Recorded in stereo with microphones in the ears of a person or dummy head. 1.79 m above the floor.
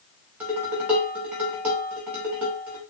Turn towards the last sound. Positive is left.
turn(degrees=0)  # may be behind; listen again after turning